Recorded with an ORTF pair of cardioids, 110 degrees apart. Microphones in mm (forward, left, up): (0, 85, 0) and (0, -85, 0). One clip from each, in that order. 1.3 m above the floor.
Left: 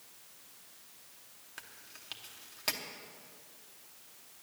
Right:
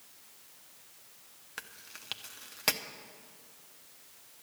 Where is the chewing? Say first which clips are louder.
Right 5 dB; 35° right, 0.9 m.